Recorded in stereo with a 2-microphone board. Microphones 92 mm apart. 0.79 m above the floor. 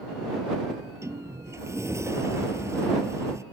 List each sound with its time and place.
0.7 s a sliding door: 30° right (ahead or behind)